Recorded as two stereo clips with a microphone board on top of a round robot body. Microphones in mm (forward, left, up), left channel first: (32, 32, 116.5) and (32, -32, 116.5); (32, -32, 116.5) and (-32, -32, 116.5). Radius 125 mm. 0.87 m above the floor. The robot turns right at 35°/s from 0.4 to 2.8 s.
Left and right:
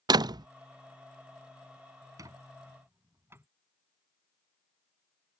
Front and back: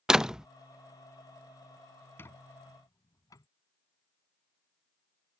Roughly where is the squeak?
Ahead right.